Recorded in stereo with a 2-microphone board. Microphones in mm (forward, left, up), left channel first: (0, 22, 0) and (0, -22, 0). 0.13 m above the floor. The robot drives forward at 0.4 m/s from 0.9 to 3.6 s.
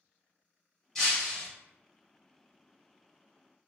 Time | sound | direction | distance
0.9 | breaking glass | 5° left (ahead or behind) | 1.6 m